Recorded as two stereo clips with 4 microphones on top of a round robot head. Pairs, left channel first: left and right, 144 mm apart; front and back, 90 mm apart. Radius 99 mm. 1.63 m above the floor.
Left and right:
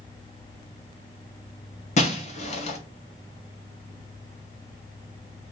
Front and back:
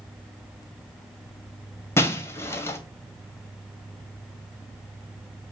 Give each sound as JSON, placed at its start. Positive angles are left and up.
{"t": 2.0, "sound": "breaking glass", "azimuth_deg": 60, "distance_m": 2.5}